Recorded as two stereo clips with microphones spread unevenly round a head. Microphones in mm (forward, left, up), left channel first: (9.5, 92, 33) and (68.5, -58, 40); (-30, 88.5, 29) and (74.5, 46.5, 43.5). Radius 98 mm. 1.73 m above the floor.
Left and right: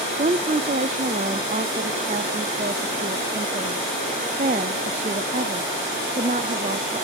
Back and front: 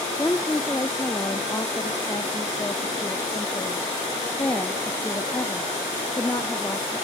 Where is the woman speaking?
125° right, 0.6 m.